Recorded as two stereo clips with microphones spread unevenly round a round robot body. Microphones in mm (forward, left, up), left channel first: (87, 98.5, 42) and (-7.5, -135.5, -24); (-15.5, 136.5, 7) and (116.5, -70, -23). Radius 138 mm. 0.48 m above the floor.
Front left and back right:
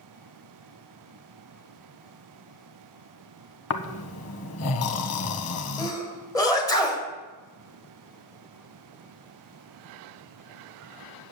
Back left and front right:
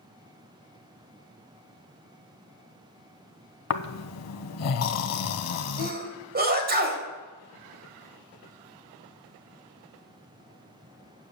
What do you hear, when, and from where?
3.7 s snoring: 105° left, 0.9 m
5.8 s a sneeze: 15° right, 3 m